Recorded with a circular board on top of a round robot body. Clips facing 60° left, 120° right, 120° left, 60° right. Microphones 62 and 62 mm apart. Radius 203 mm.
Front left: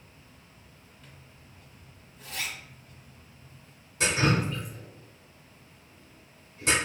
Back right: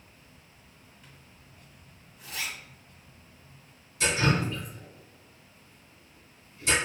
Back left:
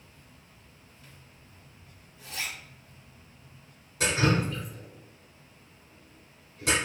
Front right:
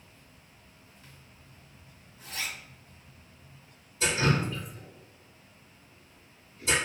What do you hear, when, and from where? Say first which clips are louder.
1.0 s a zipper: front left 1 dB, back left 1 dB; 40° right, 1.7 m
4.0 s dripping: front left 1 dB, back left 1 dB; 105° left, 1.1 m